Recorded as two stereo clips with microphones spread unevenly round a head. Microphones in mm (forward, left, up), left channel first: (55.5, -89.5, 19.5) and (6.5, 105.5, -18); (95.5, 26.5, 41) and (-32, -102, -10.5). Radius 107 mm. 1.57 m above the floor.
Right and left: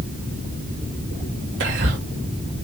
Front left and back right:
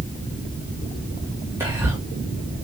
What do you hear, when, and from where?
1.6 s whispering: 145° left, 1.5 m